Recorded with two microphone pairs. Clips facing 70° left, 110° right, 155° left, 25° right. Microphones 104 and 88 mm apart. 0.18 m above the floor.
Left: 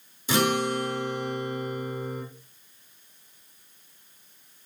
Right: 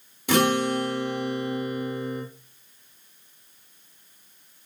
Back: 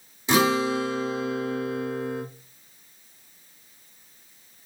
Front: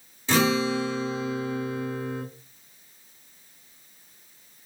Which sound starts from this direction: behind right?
A guitar, at 0.3 s.